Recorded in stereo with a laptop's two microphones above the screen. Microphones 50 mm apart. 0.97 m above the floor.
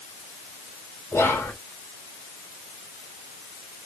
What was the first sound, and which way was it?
Whispering, 60° left (ahead or behind).